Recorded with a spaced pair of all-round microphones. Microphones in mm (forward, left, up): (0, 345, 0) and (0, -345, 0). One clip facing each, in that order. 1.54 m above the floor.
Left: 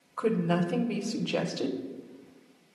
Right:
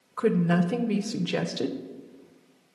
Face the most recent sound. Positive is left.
turn(degrees=-50)  # may be behind; listen again after turning